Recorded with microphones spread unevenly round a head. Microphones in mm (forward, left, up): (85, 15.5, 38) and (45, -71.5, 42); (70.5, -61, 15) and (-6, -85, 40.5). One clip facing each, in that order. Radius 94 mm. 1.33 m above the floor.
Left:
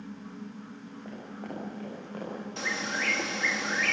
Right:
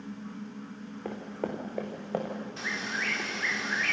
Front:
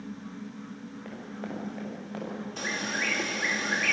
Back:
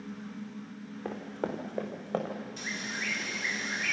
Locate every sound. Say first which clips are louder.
1.1 s running footsteps: right 6 dB, back 5 dB; 170° right, 5 m; by 2.4 s 155° right, 5.5 m
2.6 s a bird: left 5 dB, front 5 dB; 55° left, 2 m